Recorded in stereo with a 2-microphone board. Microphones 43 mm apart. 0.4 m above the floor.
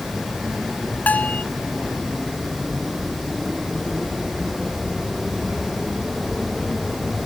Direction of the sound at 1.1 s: 45° left (ahead or behind).